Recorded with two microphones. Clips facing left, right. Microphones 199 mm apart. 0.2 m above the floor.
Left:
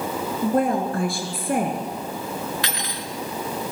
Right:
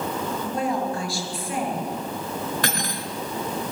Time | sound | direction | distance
0.4 | a woman speaking | 55° left (ahead or behind) | 4 m
2.6 | cutlery clinking | 50° right (ahead or behind) | 1.6 m